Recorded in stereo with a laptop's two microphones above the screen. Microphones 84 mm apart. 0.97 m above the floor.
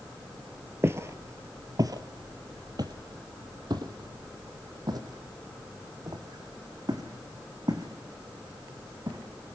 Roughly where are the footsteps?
Right.